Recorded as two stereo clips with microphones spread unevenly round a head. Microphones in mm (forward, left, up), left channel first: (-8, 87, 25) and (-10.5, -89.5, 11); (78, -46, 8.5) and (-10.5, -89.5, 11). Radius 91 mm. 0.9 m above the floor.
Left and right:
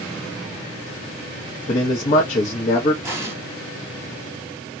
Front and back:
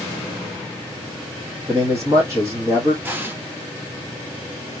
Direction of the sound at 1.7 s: 140° left.